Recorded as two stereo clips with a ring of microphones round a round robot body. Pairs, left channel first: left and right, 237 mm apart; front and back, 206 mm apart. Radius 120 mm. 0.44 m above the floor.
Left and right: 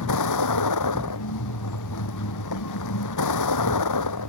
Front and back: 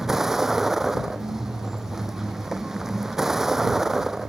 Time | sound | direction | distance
0.0 | a vehicle | 90° left | ?